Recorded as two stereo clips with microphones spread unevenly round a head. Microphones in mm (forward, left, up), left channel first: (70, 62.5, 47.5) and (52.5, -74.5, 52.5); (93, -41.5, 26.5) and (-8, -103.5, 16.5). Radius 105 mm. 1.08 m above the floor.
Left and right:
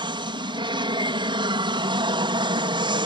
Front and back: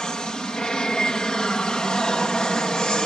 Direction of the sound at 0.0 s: 50° right.